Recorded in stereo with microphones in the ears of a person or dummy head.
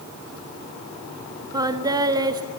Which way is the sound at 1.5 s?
20° right (ahead or behind).